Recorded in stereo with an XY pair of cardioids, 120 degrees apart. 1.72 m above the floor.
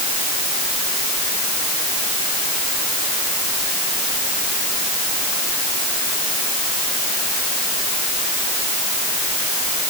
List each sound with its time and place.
Only background noise.